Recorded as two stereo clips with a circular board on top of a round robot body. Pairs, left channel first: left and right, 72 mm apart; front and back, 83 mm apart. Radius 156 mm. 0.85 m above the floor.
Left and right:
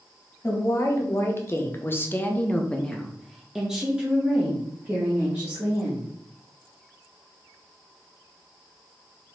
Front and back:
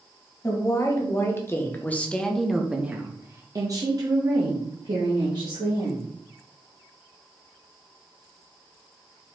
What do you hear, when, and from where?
0.4 s a woman speaking: 45° left, 1.7 m; by 6.1 s 155° right, 2.5 m